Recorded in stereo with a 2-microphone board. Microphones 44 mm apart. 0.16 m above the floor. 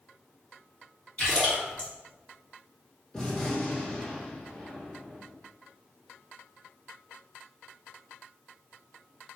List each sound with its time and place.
1.2 s a splash: 25° left (ahead or behind), 1.8 m
3.1 s a gunshot: 10° left (ahead or behind), 1.6 m